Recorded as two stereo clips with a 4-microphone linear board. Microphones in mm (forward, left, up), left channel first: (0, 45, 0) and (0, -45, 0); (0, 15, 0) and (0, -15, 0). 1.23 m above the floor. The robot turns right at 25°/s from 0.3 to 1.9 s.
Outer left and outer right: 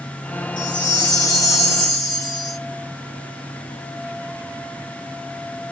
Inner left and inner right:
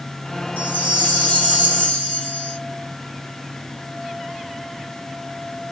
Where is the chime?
110° left, 1.2 m; by 2.6 s 145° left, 1.2 m.